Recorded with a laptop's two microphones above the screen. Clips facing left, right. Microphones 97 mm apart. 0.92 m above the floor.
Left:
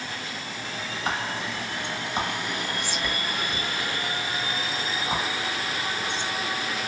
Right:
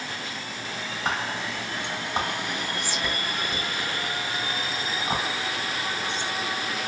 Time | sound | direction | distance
1.1 | whispering | 70° right (ahead or behind) | 3 m